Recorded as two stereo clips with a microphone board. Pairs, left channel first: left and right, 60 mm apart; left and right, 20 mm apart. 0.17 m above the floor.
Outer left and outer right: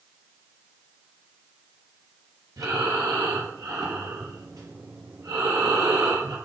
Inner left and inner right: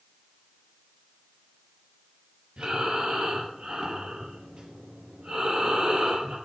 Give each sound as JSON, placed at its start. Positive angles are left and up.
{"t": 2.6, "sound": "breathing", "side_deg": -70, "distance_m": 4.5}